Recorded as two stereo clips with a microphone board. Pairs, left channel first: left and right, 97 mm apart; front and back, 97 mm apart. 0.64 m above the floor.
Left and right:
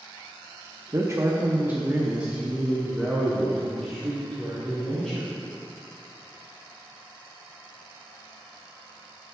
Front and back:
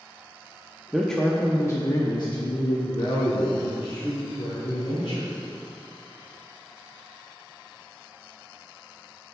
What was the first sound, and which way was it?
A man speaking, 90° right.